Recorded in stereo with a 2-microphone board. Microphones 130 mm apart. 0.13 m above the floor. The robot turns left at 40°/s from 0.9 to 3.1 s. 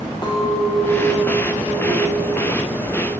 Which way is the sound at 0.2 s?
140° left.